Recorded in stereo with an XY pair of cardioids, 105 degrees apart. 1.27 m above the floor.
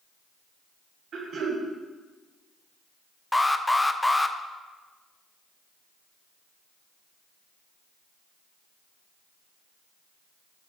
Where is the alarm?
15° left, 0.5 m.